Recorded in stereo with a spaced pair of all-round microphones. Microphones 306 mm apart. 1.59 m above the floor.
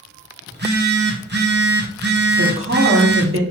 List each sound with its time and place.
0.5 s a phone buzzing: 35° right (ahead or behind), 0.9 m
2.4 s a woman speaking: 45° right (ahead or behind), 1.1 m